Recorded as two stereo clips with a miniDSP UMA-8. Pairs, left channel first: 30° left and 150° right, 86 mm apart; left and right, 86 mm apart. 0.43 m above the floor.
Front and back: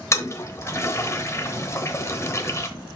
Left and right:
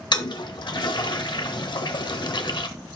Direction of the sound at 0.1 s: 80° left.